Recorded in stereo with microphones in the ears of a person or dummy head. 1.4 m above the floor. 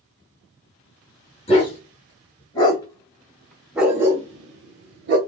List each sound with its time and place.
1.5 s a dog barking: 35° left (ahead or behind), 2.5 m; by 5.2 s 45° right (ahead or behind), 1.4 m